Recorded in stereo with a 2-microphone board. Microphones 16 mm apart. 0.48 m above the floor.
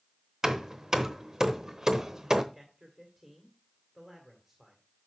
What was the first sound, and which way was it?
Hammering, 30° right (ahead or behind).